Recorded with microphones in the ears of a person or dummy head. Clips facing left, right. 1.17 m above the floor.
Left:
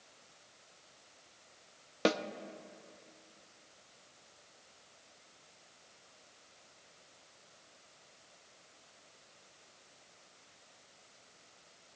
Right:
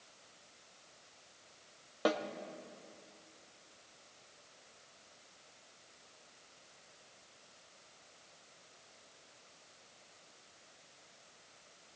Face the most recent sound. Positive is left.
turn(degrees=30)  # may be behind; listen again after turning